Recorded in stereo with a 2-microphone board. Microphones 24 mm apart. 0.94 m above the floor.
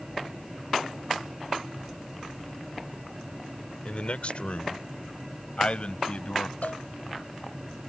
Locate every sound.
3.9 s a man speaking: 50° left (ahead or behind)
6.6 s a cowbell: 80° left